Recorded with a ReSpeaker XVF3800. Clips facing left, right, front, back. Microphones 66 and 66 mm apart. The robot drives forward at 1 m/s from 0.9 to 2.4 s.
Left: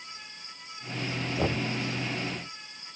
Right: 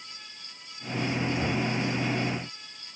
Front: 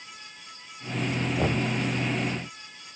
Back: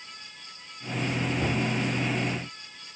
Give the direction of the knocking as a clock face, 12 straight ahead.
11 o'clock.